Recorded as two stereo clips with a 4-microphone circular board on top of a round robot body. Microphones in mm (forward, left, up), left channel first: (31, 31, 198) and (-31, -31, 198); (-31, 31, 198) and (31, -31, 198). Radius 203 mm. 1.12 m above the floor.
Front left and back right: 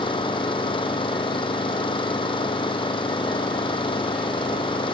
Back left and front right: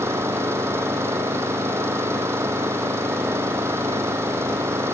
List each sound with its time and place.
0.0 s an engine running: 20° left